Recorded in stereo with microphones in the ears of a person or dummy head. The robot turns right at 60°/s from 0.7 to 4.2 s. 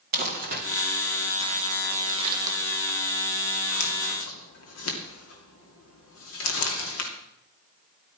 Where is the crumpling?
55° right (ahead or behind), 2.5 m; by 7.1 s 85° left, 2.5 m.